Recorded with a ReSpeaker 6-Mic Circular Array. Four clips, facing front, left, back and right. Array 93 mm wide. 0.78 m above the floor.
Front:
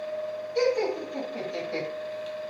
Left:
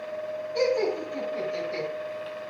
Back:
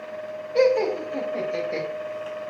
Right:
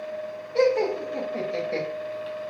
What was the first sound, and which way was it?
Laughter, 150° right.